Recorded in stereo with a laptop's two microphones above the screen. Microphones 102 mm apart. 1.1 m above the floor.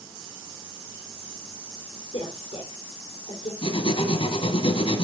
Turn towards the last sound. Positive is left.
turn(degrees=65)  # may be behind; listen again after turning